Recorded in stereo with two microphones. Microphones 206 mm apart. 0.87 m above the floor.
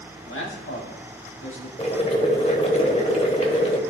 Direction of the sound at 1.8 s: 30° left (ahead or behind).